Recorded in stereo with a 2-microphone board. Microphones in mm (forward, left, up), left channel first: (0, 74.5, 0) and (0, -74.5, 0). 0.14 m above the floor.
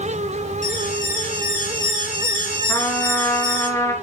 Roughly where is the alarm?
Left.